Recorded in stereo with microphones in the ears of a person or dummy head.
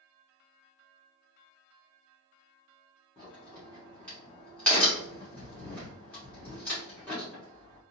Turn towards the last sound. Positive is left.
turn(degrees=15)  # may be behind; listen again after turning